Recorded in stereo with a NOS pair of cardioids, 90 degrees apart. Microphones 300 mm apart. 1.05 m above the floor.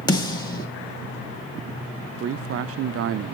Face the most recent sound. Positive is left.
turn(degrees=-55)